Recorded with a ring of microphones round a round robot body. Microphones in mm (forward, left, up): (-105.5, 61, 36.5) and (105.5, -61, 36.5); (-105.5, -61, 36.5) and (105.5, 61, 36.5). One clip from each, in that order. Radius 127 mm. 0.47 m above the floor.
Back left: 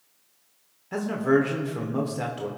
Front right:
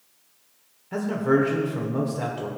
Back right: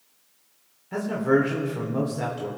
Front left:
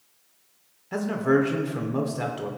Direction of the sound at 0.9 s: 90° left.